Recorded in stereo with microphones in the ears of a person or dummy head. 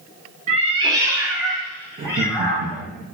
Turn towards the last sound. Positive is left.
turn(degrees=-45)  # may be behind; listen again after turning